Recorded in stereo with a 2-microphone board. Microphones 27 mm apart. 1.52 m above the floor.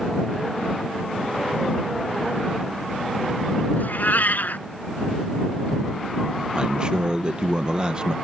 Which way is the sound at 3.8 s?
80° left.